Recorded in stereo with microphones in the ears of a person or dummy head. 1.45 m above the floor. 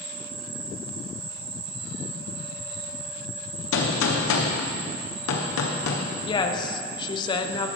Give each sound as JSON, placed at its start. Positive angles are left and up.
{"t": 0.0, "sound": "an insect", "side_deg": -20, "distance_m": 2.5}
{"t": 3.7, "sound": "a gunshot", "side_deg": 80, "distance_m": 1.2}
{"t": 6.3, "sound": "a woman speaking", "side_deg": 25, "distance_m": 0.9}